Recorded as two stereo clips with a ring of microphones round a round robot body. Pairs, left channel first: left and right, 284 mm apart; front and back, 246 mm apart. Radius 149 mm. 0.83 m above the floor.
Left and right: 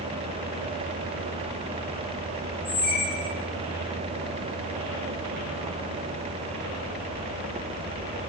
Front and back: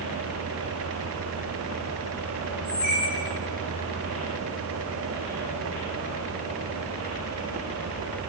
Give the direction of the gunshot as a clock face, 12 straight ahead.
I don't hear a gunshot.